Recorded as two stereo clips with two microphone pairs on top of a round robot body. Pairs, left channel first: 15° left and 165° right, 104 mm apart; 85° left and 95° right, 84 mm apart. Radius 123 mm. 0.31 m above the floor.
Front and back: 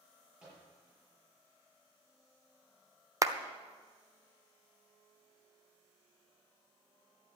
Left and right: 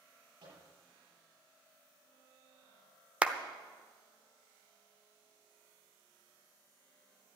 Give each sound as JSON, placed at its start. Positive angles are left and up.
{"t": 0.4, "sound": "a microwave", "azimuth_deg": -85, "distance_m": 8.5}
{"t": 3.2, "sound": "a clap", "azimuth_deg": -155, "distance_m": 1.1}